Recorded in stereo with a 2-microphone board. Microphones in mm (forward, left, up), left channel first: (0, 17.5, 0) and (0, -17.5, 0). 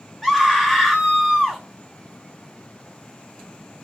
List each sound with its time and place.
0.2 s a scream: 5° left (ahead or behind), 0.7 m